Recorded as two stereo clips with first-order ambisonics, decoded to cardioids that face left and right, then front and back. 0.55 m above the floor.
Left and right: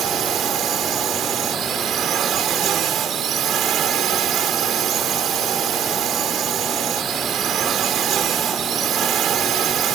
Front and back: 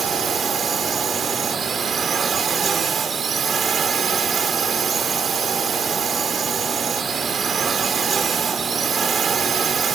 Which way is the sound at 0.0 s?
120° right.